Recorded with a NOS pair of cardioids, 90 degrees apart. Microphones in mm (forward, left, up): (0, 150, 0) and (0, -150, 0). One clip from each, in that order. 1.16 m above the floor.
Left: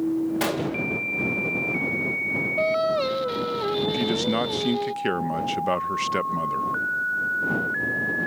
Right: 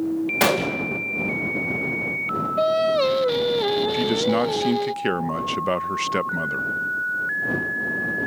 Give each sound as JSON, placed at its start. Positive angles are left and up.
{"t": 0.4, "sound": "a gunshot", "azimuth_deg": -40}
{"t": 2.6, "sound": "singing", "azimuth_deg": -25}
{"t": 3.9, "sound": "a man speaking", "azimuth_deg": -10}